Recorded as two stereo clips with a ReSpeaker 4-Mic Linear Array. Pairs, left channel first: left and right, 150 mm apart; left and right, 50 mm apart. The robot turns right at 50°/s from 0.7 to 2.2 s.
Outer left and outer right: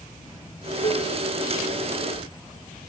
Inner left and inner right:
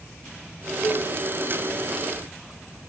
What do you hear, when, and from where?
0.8 s dishes clattering: 35° left (ahead or behind), 1.4 m; by 1.1 s 40° left (ahead or behind), 1.4 m